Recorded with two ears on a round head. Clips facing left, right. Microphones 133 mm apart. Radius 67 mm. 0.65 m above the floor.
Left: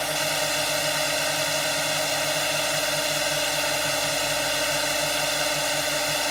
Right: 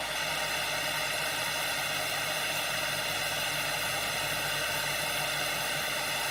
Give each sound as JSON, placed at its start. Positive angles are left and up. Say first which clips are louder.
{"t": 0.0, "sound": "a drone", "louder": "left 9 dB", "side_deg": 60}